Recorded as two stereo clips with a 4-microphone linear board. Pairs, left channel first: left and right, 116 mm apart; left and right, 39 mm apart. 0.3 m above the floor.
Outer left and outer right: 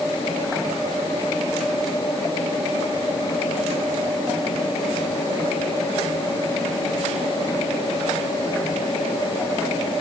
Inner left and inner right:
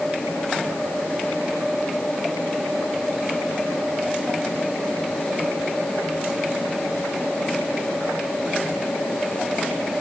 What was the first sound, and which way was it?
Only background noise.